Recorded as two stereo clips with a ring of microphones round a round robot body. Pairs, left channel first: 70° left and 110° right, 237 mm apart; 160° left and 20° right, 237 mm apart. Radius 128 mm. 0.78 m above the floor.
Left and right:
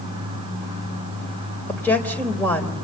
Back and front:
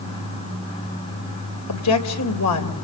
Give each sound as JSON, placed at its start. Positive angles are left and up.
{"t": 1.7, "sound": "a woman speaking", "azimuth_deg": 150, "distance_m": 3.5}